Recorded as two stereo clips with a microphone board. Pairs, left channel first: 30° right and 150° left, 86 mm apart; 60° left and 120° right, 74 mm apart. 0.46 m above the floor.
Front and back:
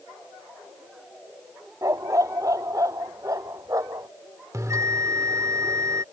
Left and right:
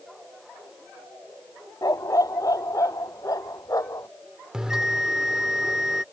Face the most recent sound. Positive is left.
turn(degrees=165)